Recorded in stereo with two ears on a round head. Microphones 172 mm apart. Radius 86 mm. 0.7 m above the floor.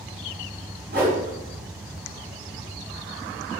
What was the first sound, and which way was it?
A whoosh, 55° right (ahead or behind).